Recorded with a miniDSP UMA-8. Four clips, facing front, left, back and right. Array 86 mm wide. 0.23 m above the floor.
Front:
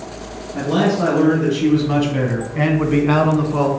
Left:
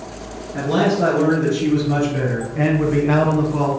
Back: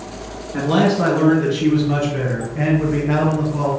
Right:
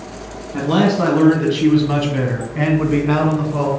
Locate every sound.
0.5 s a man speaking: 120° right, 2 m; by 3.7 s 10° right, 2.5 m